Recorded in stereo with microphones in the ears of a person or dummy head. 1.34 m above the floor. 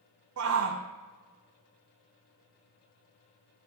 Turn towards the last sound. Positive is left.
turn(degrees=-75)  # may be behind; listen again after turning